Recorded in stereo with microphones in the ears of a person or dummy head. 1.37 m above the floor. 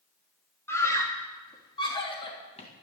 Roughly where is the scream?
Centre.